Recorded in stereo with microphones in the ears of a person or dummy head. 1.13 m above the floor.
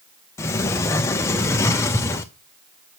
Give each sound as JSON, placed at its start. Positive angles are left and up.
{"t": 0.4, "sound": "a sliding door", "side_deg": 15, "distance_m": 0.6}